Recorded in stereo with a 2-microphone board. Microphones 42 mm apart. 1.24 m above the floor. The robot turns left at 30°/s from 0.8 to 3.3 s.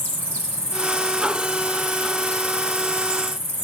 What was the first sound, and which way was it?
An insect, 95° right.